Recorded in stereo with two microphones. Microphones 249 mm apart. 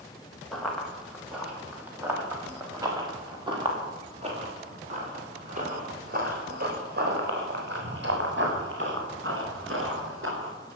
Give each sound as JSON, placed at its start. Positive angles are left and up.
{"t": 0.5, "sound": "running footsteps", "side_deg": 0, "distance_m": 4.5}